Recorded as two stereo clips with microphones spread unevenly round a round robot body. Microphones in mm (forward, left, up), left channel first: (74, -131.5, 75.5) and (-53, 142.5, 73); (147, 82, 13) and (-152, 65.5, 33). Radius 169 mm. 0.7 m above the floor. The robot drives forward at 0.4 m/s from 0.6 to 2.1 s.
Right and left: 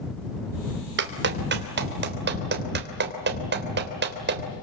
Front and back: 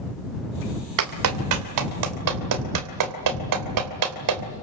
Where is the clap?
170° left, 2.5 m.